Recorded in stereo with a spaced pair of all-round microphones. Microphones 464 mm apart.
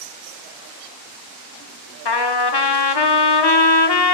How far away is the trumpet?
About 0.9 m.